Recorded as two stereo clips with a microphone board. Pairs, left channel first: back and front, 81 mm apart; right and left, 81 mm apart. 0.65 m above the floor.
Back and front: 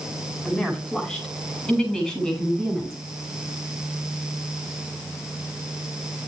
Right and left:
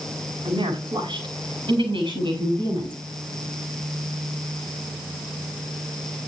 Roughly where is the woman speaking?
Left.